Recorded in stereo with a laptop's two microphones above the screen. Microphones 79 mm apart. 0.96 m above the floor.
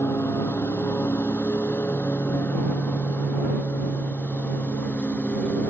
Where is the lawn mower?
30° left (ahead or behind); by 5.7 s 15° left (ahead or behind).